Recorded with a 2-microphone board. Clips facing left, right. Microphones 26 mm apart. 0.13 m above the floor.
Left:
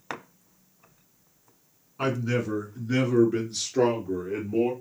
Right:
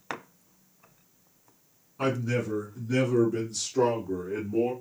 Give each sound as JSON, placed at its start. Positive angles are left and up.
{"t": 2.0, "sound": "a man speaking", "side_deg": 25, "distance_m": 1.3}